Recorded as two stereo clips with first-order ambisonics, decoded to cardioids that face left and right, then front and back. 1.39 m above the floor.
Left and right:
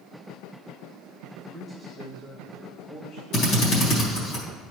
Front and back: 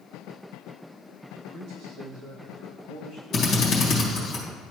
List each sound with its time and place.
1.5 s a man speaking: straight behind, 1.8 m; by 4.3 s 130° left, 4 m
3.3 s a drill: 60° left, 1.8 m